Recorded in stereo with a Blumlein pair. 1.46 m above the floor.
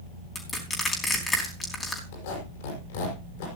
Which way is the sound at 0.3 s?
15° left.